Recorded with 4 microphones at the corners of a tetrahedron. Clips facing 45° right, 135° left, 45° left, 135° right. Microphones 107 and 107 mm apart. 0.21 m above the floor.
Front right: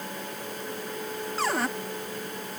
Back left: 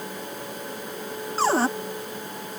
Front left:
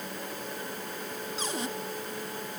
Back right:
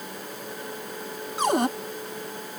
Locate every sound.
1.4 s a cupboard door: 165° right